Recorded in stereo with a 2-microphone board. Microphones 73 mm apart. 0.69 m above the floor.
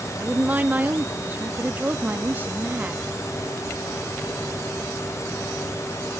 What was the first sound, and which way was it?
A woman speaking, 25° right (ahead or behind).